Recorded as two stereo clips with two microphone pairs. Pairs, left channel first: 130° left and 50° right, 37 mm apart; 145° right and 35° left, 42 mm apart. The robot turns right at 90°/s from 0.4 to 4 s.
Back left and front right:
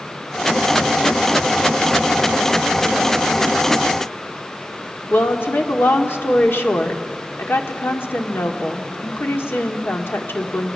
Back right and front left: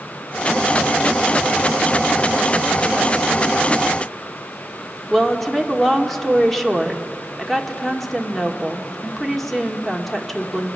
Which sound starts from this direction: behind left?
A woman speaking, at 5.1 s.